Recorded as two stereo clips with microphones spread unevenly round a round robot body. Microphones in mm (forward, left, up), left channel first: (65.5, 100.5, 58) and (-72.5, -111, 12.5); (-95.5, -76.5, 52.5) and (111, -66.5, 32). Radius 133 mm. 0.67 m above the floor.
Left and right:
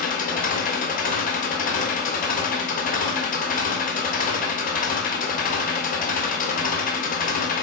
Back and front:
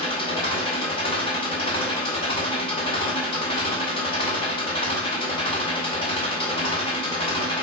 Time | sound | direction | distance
0.0 | an engine running | 115° left | 0.8 m